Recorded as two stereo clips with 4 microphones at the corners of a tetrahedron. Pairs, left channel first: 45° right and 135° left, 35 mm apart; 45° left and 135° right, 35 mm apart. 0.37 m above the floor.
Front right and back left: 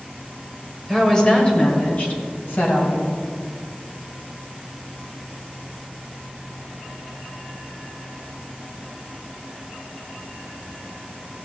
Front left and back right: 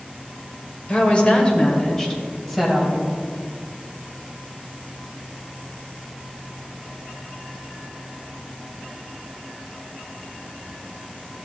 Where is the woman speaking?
25° left, 1.6 m; by 3.1 s 50° right, 2.5 m.